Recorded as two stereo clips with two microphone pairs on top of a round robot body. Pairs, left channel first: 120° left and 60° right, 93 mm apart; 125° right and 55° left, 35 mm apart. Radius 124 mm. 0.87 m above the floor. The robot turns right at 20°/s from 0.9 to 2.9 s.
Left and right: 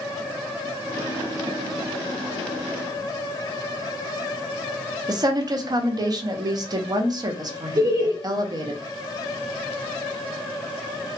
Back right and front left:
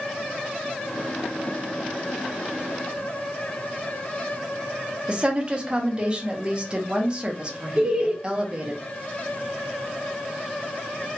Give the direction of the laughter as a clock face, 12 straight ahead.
12 o'clock.